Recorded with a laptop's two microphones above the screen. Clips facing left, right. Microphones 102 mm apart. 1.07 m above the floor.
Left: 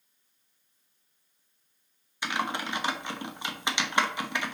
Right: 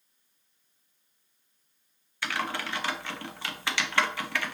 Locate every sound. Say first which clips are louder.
2.2 s typing on a keyboard: left 1 dB; 15° left (ahead or behind), 0.7 m